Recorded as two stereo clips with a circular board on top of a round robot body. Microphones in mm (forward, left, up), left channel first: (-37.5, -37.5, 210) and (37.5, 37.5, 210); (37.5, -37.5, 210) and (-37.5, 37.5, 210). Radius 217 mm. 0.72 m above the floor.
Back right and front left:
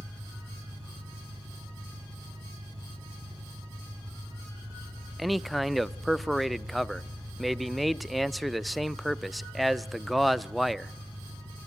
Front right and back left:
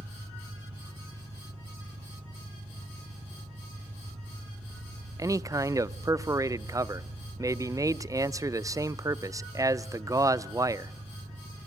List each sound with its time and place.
0.0 s an engine running: 105° left, 6.5 m
5.2 s a man speaking: 135° left, 0.6 m